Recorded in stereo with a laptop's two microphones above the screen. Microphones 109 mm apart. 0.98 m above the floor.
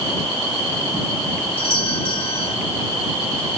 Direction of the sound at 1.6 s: 55° left (ahead or behind).